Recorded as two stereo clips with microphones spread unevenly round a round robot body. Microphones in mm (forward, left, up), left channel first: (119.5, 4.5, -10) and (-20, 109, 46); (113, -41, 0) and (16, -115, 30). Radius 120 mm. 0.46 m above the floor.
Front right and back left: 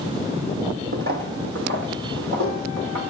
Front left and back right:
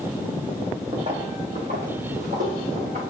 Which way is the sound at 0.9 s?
160° left.